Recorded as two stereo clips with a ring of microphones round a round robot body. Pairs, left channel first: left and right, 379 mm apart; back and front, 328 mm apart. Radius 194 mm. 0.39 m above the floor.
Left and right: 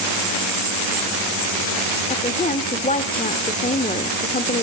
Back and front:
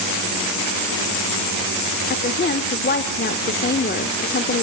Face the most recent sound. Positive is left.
turn(degrees=145)